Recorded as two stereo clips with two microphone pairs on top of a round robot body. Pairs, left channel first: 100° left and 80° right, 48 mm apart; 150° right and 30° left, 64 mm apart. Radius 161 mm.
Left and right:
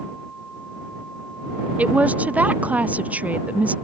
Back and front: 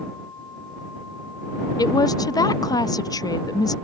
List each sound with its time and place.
1.8 s a woman speaking: 135° right